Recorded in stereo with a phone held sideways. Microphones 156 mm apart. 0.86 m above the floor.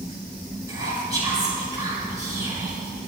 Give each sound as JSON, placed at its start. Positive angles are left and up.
{"t": 0.7, "sound": "whispering", "side_deg": -25, "distance_m": 4.5}